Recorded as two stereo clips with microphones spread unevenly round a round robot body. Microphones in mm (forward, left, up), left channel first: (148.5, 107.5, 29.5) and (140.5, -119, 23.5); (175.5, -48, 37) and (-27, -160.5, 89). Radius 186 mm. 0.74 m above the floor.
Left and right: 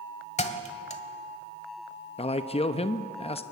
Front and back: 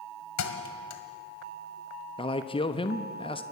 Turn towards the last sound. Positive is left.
turn(degrees=40)